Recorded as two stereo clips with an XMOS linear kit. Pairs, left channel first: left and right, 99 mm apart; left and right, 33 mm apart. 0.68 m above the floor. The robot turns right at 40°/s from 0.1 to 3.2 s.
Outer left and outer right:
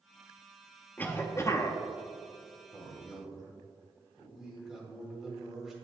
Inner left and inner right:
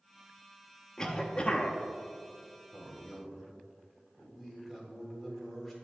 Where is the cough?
25° left, 0.7 m; by 1.8 s 55° left, 0.7 m.